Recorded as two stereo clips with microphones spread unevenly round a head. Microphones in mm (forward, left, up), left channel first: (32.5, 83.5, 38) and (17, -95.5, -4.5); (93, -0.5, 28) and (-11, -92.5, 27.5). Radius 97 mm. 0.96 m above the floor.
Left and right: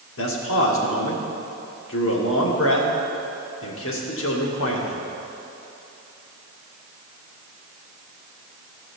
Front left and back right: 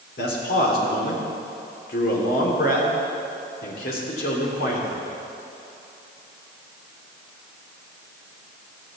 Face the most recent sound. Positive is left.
turn(degrees=75)